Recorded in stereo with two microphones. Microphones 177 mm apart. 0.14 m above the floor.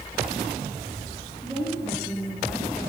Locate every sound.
1.4 s a woman speaking: 5° left (ahead or behind), 9 m; by 2.9 s centre (ahead or behind), 10 m